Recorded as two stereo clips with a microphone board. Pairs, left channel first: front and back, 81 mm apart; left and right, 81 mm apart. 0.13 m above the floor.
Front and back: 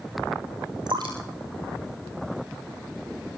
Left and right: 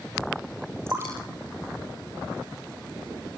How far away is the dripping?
About 9.5 m.